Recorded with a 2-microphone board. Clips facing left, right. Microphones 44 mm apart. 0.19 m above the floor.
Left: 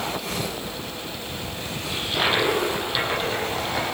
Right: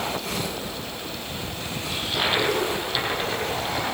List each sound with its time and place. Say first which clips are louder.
1.9 s a toilet flushing: left 2 dB; 5° left (ahead or behind), 8.5 m